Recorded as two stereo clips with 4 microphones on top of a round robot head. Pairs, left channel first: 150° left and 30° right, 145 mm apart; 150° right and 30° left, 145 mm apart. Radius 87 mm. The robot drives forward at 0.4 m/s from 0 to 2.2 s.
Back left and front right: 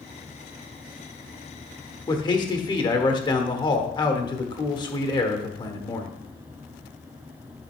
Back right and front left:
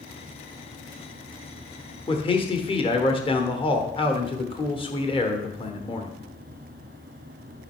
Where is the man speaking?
170° right, 1.2 m.